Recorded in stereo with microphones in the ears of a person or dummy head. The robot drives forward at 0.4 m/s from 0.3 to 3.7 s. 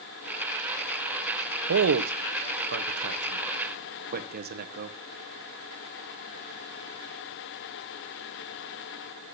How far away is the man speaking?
About 0.8 m.